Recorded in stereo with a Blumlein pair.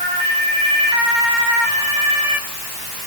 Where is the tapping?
No tapping in this recording.